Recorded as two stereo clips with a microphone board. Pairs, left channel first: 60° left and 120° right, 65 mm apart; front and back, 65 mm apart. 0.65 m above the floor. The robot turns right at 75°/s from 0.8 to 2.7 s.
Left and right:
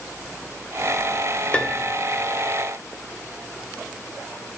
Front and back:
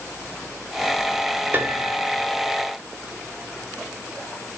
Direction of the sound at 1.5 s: 130° left.